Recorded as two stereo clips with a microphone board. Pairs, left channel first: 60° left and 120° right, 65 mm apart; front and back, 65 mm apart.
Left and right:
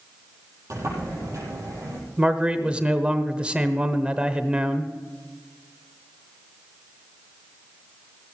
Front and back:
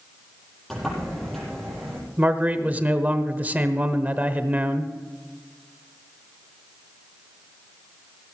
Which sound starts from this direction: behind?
A man speaking, at 2.2 s.